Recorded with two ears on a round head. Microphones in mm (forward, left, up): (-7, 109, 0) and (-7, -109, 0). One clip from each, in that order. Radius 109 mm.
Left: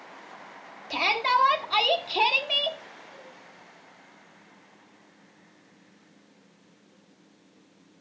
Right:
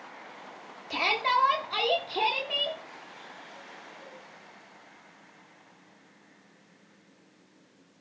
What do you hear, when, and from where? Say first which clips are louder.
0.9 s a shout: left 2 dB; 10° left (ahead or behind), 1.3 m; by 2.8 s 45° left (ahead or behind), 1.6 m